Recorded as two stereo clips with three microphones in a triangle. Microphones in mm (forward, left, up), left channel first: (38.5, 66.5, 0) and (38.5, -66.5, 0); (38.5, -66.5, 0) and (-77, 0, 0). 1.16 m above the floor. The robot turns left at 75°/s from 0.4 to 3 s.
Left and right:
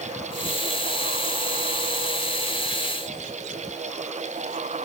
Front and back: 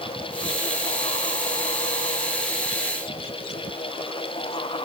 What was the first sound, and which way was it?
Only background noise.